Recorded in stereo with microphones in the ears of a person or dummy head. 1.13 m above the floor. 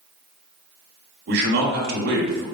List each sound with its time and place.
1.3 s a man speaking: 50° right (ahead or behind), 0.9 m